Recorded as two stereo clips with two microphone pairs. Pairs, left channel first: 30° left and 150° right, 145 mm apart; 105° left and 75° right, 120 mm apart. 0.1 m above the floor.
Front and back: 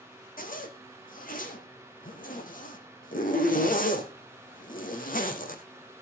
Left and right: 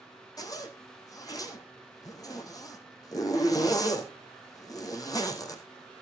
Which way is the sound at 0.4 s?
45° left.